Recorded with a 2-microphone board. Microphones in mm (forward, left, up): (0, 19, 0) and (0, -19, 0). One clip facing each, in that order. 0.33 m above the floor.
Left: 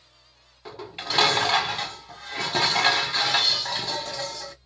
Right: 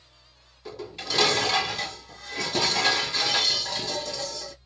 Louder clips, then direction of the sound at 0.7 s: Left 1 dB; 35° left (ahead or behind).